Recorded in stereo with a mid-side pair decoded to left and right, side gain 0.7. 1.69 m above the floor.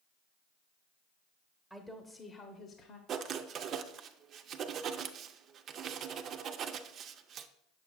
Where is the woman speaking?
Straight ahead, 1.0 m; by 3.0 s 50° left, 1.0 m.